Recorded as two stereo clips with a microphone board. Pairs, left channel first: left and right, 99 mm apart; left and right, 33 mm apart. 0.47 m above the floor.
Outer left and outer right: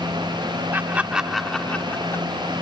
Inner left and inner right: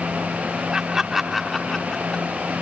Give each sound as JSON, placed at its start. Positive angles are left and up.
{"t": 0.7, "sound": "laughter", "side_deg": -20}